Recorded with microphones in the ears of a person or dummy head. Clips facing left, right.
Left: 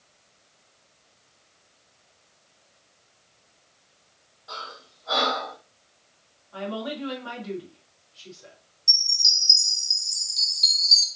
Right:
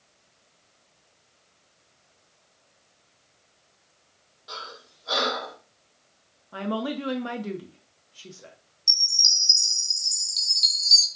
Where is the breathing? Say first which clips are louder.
Left 1 dB; 40° right (ahead or behind), 2.5 m.